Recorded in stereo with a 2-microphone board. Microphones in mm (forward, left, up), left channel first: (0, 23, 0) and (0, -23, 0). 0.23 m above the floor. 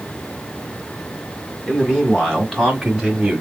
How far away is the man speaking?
About 2.0 m.